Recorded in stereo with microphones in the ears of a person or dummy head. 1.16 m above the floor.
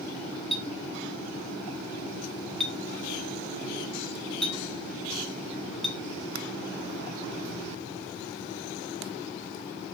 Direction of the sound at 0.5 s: Centre (ahead or behind).